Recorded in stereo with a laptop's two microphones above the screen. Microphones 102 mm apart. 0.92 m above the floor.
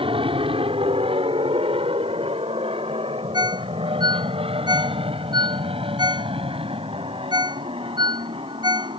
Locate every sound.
0.0 s an aircraft: 60° right (ahead or behind); by 9.0 s 65° right (ahead or behind)
3.3 s a ringtone: 45° right (ahead or behind)